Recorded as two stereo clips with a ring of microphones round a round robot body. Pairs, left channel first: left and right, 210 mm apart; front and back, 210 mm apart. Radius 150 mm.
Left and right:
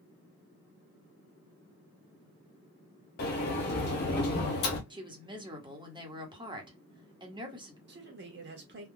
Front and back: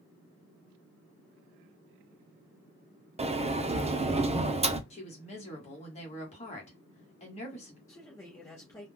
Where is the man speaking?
75° right, 1.3 m.